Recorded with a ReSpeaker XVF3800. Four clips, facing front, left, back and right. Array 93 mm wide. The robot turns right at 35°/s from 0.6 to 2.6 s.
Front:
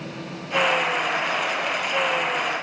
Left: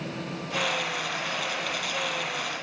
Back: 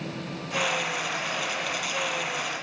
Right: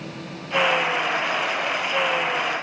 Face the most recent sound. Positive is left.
No sound to turn to.